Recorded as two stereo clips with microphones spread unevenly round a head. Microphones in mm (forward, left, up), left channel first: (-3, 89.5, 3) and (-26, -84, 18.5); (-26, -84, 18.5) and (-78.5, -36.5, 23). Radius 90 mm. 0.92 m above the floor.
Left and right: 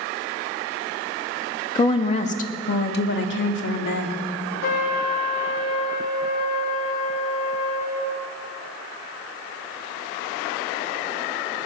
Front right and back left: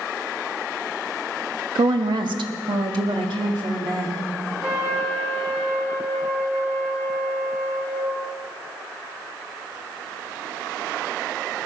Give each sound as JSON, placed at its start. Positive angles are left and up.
{"t": 1.8, "sound": "a woman speaking", "azimuth_deg": 145, "distance_m": 1.1}
{"t": 4.6, "sound": "a trumpet", "azimuth_deg": 55, "distance_m": 1.5}